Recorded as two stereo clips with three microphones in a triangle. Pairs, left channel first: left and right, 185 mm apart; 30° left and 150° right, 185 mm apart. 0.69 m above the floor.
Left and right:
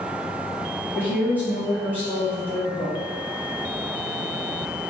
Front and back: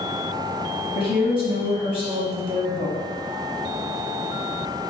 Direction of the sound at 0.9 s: 15° right.